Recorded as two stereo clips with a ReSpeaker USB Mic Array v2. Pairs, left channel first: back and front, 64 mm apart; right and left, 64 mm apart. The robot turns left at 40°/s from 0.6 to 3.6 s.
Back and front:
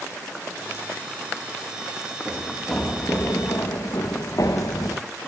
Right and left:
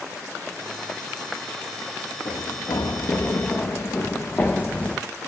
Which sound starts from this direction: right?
Running footsteps, at 2.2 s.